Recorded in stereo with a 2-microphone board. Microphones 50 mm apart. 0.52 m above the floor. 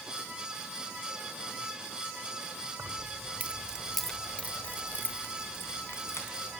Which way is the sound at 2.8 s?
55° right (ahead or behind).